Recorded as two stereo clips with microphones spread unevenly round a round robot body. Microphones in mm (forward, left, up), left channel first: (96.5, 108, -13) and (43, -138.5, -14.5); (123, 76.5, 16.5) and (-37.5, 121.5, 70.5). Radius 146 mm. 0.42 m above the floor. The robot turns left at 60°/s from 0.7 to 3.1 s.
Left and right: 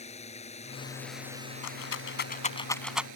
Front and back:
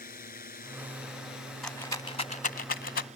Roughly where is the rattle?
Ahead left.